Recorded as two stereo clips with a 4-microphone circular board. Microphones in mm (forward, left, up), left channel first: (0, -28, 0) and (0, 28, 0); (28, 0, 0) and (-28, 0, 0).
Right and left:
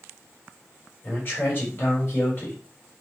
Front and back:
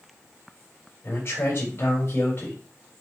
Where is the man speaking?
40° right, 3.5 m.